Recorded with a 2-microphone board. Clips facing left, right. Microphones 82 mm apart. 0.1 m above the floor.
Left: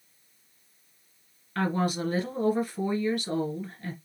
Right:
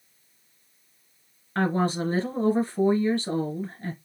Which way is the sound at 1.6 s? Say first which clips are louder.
Right 3 dB; 30° right (ahead or behind).